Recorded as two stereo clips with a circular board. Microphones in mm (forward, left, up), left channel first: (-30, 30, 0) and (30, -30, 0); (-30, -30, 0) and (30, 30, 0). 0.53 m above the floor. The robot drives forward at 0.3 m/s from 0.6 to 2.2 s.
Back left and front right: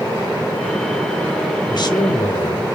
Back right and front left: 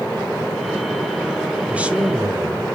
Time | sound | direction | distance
1.7 | a man speaking | 115° left | 1.6 m